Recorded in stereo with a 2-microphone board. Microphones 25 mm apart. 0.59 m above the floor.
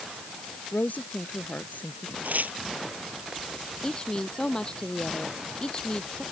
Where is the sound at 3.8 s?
30° left (ahead or behind).